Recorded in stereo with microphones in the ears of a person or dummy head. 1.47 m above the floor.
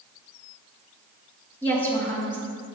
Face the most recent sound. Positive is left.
turn(degrees=15)  # may be behind; listen again after turning